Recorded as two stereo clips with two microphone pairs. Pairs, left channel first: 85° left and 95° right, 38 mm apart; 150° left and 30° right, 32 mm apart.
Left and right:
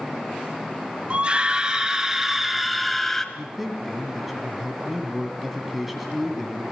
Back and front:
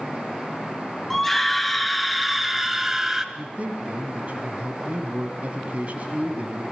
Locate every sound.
1.1 s a scream: 130° right, 1.8 m; by 3.2 s 15° left, 1.5 m
3.4 s a man speaking: 10° right, 2.5 m